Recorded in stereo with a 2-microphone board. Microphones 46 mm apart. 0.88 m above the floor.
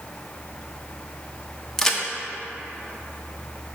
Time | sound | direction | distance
1.8 | a crack | 10° left (ahead or behind) | 0.7 m